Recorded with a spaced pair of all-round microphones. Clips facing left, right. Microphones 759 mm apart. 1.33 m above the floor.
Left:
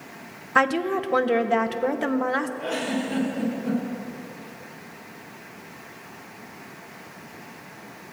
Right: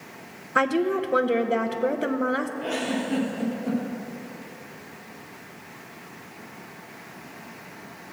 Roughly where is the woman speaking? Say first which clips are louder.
Right 1 dB; left.